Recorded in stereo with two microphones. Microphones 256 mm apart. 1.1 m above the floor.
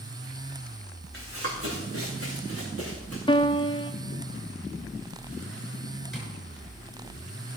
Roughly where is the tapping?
Centre.